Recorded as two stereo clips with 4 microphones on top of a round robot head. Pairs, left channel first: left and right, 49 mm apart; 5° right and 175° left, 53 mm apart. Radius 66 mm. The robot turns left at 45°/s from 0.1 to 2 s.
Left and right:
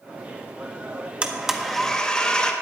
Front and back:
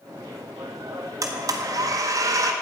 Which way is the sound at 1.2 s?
160° right.